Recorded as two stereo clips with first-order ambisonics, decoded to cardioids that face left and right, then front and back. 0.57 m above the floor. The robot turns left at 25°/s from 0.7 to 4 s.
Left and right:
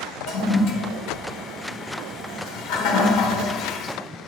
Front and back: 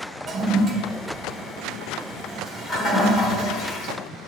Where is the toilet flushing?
120° left, 1.4 m; by 3.9 s 40° left, 1.4 m.